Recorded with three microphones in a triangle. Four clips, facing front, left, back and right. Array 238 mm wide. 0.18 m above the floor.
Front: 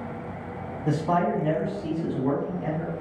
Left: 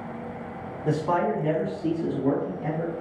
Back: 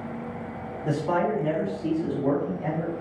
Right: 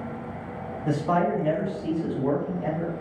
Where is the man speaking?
80° left, 1.5 m; by 2.9 s 135° right, 1.3 m.